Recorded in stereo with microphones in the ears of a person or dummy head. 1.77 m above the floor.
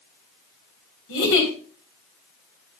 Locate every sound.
1.1 s a giggle: 70° left (ahead or behind), 4 m